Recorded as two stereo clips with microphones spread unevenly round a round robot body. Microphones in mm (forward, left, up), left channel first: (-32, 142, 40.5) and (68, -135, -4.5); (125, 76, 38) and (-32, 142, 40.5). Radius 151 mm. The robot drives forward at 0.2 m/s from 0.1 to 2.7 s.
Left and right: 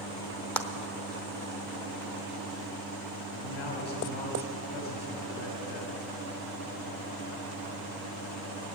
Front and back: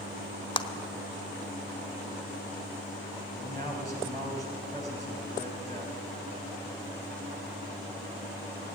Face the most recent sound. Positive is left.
turn(degrees=120)